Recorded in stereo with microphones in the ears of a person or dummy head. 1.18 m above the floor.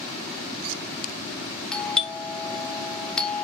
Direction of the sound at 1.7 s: 5° left (ahead or behind).